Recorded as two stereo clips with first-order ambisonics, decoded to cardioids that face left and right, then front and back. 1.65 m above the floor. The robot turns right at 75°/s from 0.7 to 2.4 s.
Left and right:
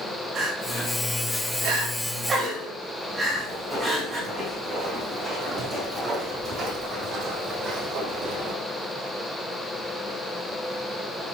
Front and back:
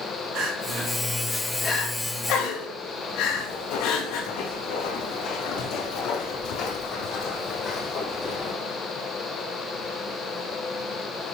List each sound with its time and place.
0.3 s crying: 140° right, 3 m; by 4.3 s 10° right, 3 m
3.3 s footsteps: straight ahead, 4.5 m; by 8.6 s 55° right, 3 m